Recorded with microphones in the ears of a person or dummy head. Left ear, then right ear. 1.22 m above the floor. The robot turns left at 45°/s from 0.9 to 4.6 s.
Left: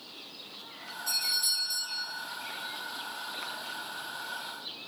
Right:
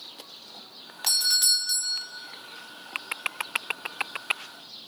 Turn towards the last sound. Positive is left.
turn(degrees=160)